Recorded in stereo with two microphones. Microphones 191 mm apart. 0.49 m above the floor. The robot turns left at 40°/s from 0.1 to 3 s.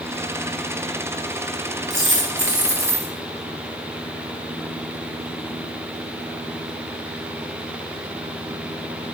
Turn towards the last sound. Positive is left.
turn(degrees=-140)